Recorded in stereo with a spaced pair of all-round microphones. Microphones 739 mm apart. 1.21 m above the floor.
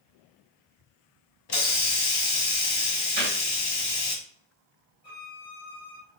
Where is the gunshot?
75° right (ahead or behind), 2.5 m.